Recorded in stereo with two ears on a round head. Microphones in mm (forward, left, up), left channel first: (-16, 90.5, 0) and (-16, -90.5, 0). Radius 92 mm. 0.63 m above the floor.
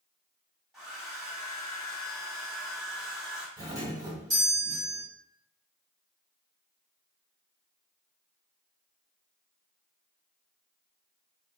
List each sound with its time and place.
0.7 s a hair dryer: 5° right (ahead or behind), 1.3 m
3.6 s a doorbell: 15° right (ahead or behind), 1.7 m